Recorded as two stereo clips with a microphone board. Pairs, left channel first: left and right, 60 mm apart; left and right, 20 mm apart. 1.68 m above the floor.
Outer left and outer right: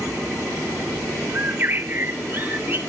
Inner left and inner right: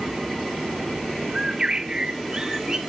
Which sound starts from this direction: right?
A bird, at 1.3 s.